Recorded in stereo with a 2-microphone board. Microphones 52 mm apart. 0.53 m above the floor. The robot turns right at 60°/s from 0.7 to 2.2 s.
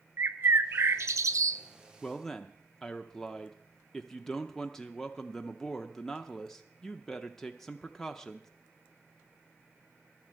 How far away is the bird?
About 0.5 m.